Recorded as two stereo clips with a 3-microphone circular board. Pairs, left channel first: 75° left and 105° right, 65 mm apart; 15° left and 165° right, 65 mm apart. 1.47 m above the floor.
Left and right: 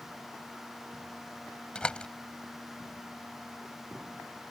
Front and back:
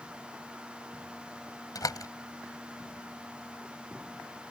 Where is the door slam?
Straight ahead.